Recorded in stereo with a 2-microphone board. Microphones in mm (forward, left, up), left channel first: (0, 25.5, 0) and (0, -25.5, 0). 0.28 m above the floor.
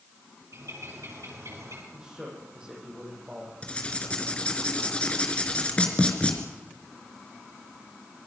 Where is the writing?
25° left (ahead or behind), 3.5 m.